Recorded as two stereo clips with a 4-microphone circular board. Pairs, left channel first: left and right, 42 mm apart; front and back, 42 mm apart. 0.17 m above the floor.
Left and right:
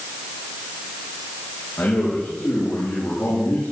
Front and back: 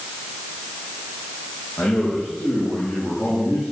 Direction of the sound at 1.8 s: 45° left.